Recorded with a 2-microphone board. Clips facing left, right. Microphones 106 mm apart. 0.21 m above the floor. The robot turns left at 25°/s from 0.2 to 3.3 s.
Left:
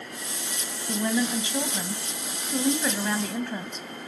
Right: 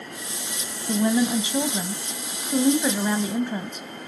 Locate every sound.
0.9 s a woman speaking: 20° right (ahead or behind), 1.0 m; by 4.1 s 15° right (ahead or behind), 1.0 m